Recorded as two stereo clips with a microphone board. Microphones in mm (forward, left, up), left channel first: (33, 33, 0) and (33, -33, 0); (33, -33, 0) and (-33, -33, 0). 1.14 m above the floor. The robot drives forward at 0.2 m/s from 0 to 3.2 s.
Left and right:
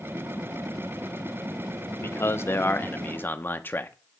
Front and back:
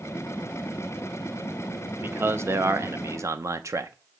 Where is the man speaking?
130° left, 0.6 m; by 3.9 s 145° left, 0.8 m.